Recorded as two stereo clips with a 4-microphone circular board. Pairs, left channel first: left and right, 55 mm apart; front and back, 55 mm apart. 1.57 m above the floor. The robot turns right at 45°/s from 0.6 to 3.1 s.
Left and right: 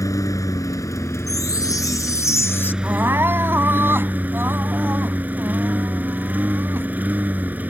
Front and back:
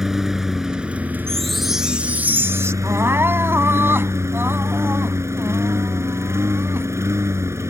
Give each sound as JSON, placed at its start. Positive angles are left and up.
{"t": 0.0, "sound": "a lawn mower", "azimuth_deg": 100}
{"t": 1.3, "sound": "a chime", "azimuth_deg": 75}
{"t": 2.8, "sound": "crying", "azimuth_deg": -150}